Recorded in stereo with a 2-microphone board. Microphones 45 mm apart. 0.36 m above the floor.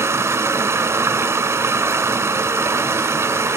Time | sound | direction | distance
0.0 | running water | 85° right | 1.0 m